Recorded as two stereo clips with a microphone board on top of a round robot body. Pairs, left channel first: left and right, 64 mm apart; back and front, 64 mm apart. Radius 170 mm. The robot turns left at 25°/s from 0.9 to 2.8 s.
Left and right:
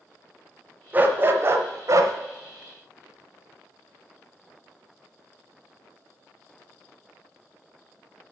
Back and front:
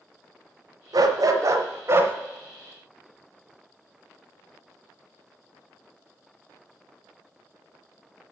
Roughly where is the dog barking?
Ahead right.